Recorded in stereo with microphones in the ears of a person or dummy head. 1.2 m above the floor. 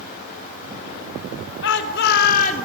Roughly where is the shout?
Left.